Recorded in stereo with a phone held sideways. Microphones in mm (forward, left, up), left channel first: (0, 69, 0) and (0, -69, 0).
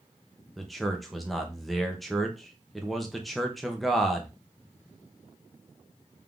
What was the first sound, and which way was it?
A man speaking, centre (ahead or behind).